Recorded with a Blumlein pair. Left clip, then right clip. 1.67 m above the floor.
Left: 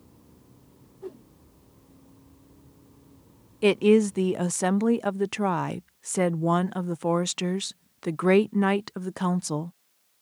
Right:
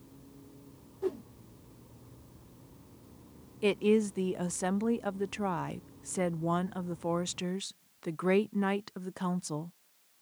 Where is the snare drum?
I don't hear a snare drum.